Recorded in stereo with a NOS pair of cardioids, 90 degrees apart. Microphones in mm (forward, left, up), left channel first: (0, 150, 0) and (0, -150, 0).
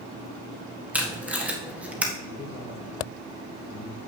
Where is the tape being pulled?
5° right, 1.6 m.